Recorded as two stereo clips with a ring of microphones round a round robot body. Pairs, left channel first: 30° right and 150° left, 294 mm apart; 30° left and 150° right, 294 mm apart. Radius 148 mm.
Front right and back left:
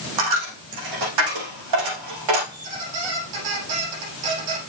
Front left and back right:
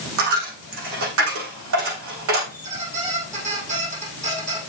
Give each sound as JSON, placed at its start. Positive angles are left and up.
{"t": 0.2, "sound": "a dropped coin", "azimuth_deg": 165, "distance_m": 6.0}
{"t": 2.5, "sound": "a squeak", "azimuth_deg": 140, "distance_m": 5.5}